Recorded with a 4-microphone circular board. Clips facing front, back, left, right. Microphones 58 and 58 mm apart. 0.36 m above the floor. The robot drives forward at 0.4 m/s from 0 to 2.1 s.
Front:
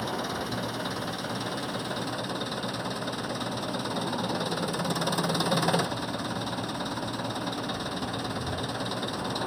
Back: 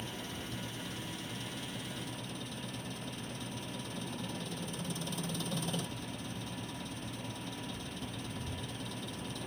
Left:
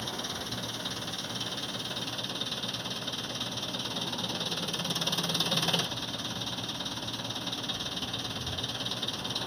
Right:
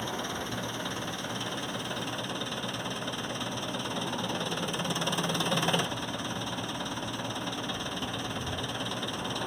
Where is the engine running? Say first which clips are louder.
Front 11 dB, right 3 dB; 15° right.